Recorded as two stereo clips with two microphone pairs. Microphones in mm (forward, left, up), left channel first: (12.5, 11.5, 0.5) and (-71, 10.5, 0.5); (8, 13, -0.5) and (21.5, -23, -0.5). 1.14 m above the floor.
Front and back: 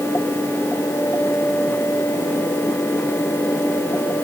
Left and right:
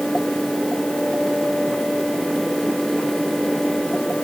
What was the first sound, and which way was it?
Only background noise.